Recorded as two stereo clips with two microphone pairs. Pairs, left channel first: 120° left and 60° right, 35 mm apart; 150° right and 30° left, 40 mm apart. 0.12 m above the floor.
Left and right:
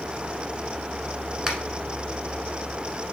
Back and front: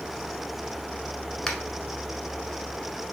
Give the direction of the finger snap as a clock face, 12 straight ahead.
3 o'clock.